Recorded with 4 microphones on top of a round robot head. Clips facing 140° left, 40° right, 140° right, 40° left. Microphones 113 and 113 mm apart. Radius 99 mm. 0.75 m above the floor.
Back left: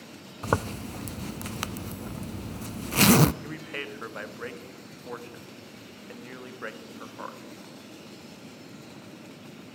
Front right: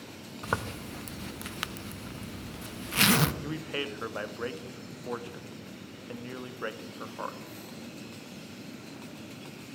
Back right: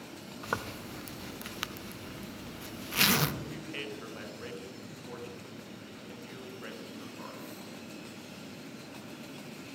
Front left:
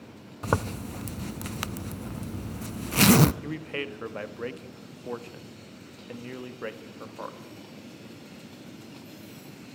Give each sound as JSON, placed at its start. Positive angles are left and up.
{"t": 0.4, "sound": "a zipper", "azimuth_deg": 85, "distance_m": 0.5}
{"t": 3.4, "sound": "a man speaking", "azimuth_deg": 30, "distance_m": 1.4}